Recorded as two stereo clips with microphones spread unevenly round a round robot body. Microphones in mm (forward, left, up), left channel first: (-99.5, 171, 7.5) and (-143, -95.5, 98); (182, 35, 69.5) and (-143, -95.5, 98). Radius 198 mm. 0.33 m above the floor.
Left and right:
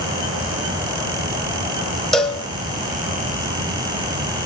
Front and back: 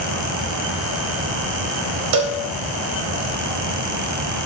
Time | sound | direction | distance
2.1 | a cowbell | 165° left | 0.8 m